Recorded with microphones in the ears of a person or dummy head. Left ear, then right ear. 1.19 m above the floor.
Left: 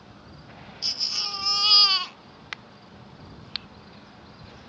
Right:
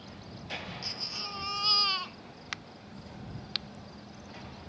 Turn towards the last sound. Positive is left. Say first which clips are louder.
# left 2 dB
turn(degrees=15)  # may be behind; listen again after turning